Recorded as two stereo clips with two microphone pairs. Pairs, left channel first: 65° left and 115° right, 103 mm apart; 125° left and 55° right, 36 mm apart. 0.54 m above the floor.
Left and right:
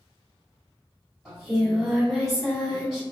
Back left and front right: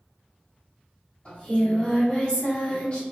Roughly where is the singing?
Behind.